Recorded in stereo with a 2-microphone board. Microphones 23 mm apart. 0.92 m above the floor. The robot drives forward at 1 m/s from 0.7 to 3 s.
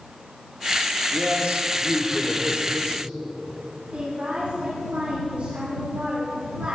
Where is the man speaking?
65° right (ahead or behind), 1.9 m; by 3.1 s 35° right (ahead or behind), 3 m.